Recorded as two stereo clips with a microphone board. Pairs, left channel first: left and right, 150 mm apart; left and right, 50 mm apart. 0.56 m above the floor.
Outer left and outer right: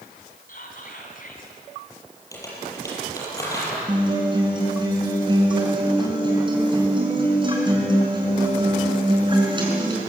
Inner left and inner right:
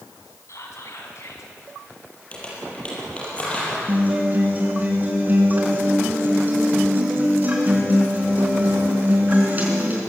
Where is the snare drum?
I don't hear a snare drum.